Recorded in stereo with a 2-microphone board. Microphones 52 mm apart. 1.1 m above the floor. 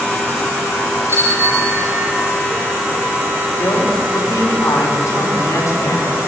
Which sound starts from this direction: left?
A man speaking, at 3.6 s.